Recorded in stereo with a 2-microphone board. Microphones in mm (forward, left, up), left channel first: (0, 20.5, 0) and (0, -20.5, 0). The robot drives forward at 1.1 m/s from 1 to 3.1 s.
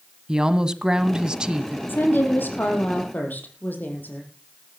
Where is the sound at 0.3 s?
20° right (ahead or behind), 1.3 m.